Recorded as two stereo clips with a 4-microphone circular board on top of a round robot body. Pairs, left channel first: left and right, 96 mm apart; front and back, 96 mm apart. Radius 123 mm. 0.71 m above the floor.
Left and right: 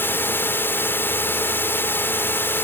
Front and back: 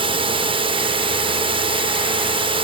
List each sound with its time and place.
0.0 s a drone: 160° left